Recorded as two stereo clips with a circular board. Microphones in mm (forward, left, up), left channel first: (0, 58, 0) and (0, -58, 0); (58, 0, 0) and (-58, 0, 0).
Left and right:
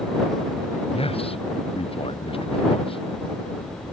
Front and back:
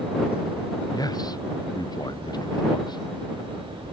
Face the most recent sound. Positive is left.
turn(degrees=50)